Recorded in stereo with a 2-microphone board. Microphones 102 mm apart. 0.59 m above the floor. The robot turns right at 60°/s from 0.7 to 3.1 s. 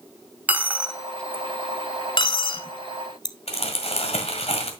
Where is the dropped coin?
15° right (ahead or behind), 0.7 m; by 3.4 s 45° left (ahead or behind), 0.7 m.